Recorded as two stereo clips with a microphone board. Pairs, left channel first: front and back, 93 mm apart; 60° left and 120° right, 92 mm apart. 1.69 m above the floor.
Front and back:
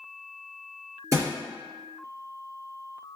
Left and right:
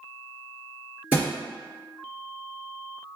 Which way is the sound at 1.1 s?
170° left.